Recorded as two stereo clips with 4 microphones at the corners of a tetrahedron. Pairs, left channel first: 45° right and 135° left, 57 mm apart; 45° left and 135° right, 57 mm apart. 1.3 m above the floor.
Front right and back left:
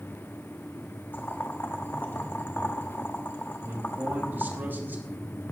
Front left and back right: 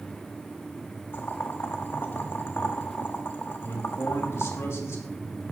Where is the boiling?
5° left, 1.1 m.